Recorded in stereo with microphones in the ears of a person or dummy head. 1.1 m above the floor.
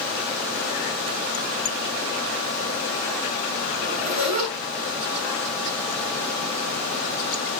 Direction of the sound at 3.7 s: 40° right (ahead or behind).